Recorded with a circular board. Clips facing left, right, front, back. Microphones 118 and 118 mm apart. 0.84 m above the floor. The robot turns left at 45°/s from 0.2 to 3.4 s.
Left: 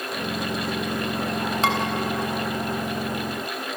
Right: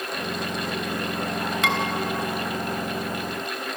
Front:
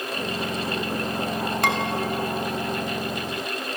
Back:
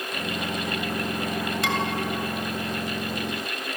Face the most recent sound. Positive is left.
turn(degrees=-45)